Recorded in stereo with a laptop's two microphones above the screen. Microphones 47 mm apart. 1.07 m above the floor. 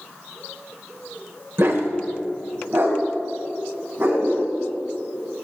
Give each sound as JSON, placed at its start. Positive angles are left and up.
{"t": 1.6, "sound": "a dog barking", "side_deg": -60, "distance_m": 1.5}